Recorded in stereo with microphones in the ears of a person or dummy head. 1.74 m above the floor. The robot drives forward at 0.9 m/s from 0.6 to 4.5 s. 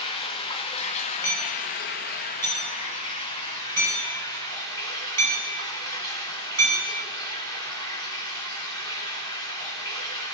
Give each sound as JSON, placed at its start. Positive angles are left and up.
{"t": 0.0, "sound": "running water", "side_deg": 30, "distance_m": 1.6}
{"t": 1.2, "sound": "hammering", "side_deg": 15, "distance_m": 5.5}